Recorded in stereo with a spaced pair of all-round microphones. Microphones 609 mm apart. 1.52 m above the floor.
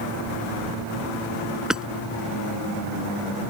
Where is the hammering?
Centre (ahead or behind).